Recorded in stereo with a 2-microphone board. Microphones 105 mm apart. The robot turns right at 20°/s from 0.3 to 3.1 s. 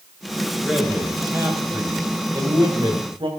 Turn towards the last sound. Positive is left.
turn(degrees=-125)